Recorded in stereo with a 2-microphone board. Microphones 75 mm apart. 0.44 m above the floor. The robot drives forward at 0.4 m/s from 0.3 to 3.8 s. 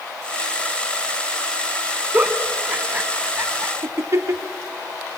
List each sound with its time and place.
2.1 s a giggle: 20° right (ahead or behind), 1.2 m; by 4.4 s 40° right (ahead or behind), 0.6 m